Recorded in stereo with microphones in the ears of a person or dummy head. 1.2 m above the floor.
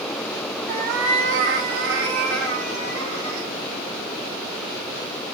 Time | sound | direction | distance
0.7 | a cat meowing | 50° right (ahead or behind) | 0.7 m